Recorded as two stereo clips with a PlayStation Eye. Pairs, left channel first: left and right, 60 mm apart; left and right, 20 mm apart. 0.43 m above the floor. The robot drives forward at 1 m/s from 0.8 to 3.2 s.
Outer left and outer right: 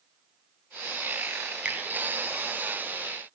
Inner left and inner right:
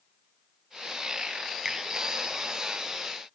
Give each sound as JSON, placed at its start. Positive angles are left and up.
{"t": 1.6, "sound": "a finger snap", "side_deg": -15, "distance_m": 4.0}